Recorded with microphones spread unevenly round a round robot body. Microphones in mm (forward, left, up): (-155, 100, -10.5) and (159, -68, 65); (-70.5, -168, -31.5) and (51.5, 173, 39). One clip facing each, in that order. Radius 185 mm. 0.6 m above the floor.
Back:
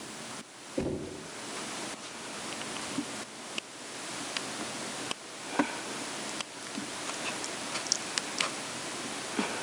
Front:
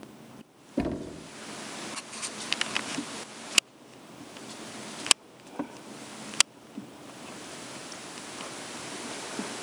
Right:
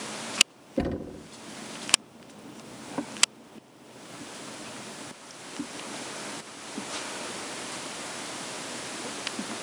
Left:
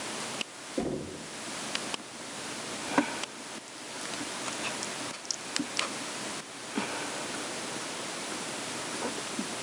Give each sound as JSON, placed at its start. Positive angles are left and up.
{"t": 0.8, "sound": "knocking", "azimuth_deg": -75, "distance_m": 1.4}